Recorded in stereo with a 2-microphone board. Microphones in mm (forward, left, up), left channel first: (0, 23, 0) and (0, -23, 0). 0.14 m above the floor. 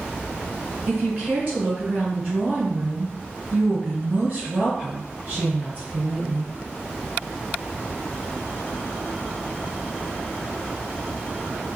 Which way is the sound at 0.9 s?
25° right (ahead or behind).